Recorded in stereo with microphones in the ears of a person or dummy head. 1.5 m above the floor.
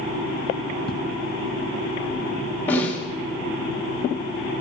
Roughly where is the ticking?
Left.